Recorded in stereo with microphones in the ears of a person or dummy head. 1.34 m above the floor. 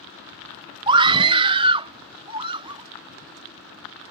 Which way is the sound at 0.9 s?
25° right (ahead or behind).